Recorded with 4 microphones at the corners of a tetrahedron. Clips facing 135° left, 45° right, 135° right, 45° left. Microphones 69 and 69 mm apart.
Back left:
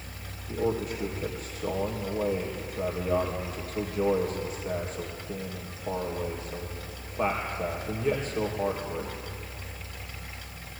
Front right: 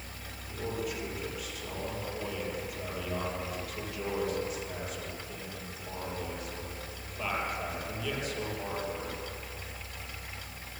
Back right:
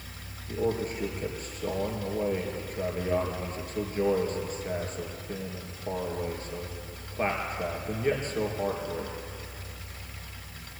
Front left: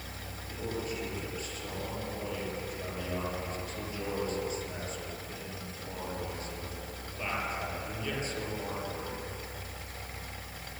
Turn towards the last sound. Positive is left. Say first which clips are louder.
# back left 7 dB, back right 8 dB
turn(degrees=-170)